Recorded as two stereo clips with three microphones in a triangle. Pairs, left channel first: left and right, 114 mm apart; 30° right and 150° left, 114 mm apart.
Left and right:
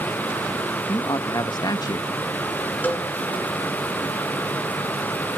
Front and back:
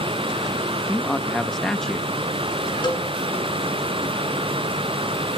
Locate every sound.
0.9 s a man speaking: 55° left, 0.8 m
2.8 s a cowbell: 15° left, 2.5 m